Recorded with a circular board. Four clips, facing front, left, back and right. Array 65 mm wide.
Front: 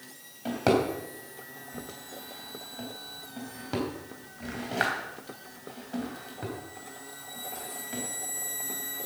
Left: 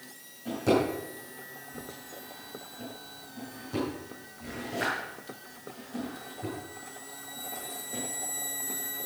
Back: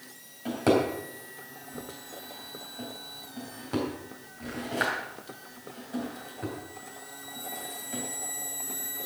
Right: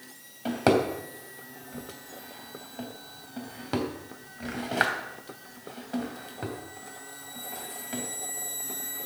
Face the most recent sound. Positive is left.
turn(degrees=-80)